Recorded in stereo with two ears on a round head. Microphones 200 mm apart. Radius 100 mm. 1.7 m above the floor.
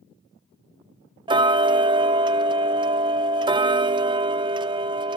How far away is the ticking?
About 0.5 m.